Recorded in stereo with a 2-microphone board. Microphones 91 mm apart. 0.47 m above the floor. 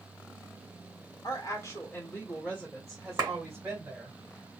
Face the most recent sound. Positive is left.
turn(degrees=-35)  # may be behind; listen again after turning